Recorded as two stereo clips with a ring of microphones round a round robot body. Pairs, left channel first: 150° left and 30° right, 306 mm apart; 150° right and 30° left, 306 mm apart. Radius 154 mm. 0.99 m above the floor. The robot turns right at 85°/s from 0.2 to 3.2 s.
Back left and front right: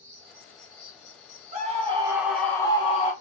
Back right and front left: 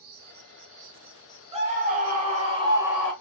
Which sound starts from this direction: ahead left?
An insect, at 0.0 s.